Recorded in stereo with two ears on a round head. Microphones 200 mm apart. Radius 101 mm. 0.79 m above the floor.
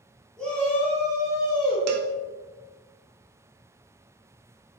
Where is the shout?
5° left (ahead or behind), 2 m; by 1.8 s 25° left (ahead or behind), 2.5 m.